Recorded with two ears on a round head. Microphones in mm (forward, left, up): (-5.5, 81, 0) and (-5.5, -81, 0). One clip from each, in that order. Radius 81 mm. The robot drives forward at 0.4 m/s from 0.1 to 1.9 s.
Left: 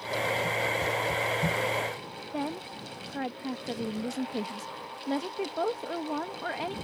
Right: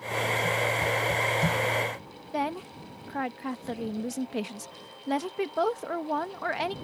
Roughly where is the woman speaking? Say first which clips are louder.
Right 5 dB; right.